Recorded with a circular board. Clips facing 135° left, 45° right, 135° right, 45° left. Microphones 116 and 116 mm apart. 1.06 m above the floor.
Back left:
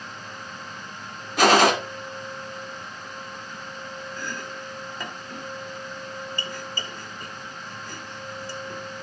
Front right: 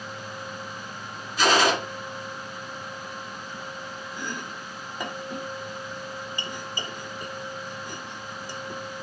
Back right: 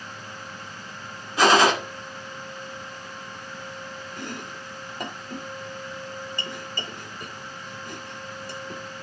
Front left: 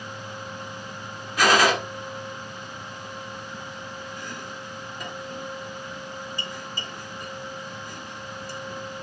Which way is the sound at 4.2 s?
115° right.